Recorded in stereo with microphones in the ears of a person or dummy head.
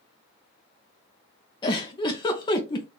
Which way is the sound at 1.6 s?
20° left (ahead or behind).